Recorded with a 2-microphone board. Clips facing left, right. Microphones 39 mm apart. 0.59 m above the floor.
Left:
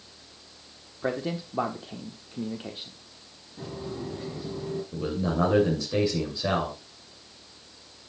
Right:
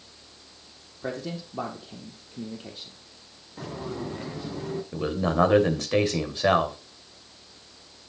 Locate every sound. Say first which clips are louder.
1.0 s a man speaking: left 3 dB; 25° left (ahead or behind), 1.2 m
3.6 s footsteps: right 2 dB; 80° right, 3.5 m; by 4.8 s 55° right (ahead or behind), 3.5 m
4.9 s a man speaking: right 4 dB; 65° right (ahead or behind), 2.5 m